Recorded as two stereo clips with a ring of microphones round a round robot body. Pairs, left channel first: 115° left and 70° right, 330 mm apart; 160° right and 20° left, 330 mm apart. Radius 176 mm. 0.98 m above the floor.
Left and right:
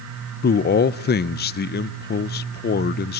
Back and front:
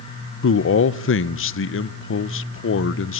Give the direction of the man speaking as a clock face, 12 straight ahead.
7 o'clock.